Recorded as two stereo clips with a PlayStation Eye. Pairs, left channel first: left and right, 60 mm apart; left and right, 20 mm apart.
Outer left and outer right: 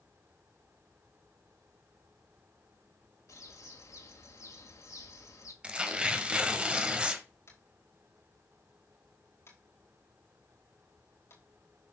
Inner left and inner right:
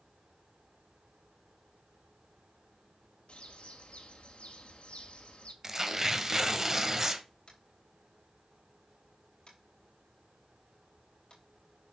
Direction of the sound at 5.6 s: 20° right (ahead or behind).